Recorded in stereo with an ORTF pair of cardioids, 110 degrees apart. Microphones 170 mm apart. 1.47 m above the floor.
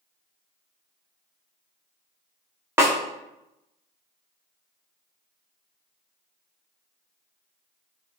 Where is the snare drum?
15° right, 0.7 m.